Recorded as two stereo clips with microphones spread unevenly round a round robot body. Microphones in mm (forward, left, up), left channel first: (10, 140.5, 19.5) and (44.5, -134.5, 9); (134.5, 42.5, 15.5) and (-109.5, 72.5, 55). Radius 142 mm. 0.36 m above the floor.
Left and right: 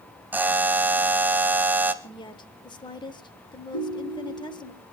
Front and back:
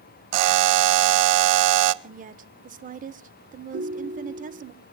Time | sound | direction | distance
0.3 | a buzzer | 165° right | 0.6 m
2.0 | a woman speaking | 150° left | 0.8 m
3.7 | a ringtone | 125° left | 4 m